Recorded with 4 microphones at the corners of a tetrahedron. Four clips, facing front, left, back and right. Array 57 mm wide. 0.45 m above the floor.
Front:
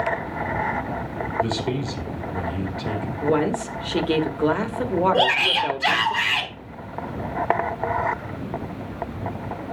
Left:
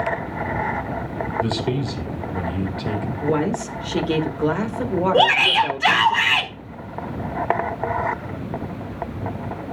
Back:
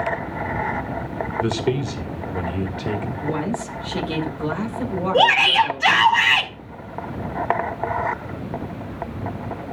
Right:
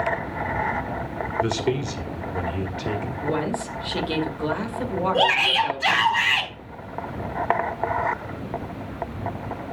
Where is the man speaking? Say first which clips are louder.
Right 1 dB, back 3 dB; 145° right, 1.8 m.